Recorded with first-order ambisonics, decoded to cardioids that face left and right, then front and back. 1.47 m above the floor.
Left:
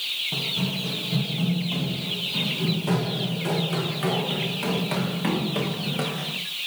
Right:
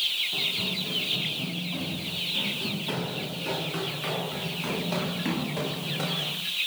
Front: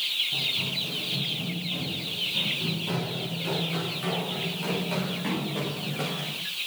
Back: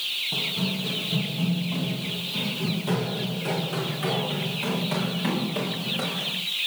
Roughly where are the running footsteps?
Behind left.